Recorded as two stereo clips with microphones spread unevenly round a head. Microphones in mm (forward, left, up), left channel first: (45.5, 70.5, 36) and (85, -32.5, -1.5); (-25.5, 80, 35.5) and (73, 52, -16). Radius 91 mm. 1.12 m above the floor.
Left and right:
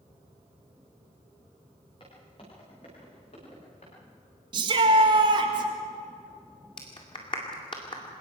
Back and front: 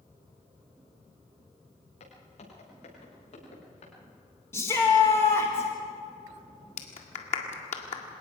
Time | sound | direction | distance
2.0 | footsteps | 175° left | 9.5 m
4.5 | a shout | 110° right | 1.8 m
6.8 | a clap | 175° left | 1.9 m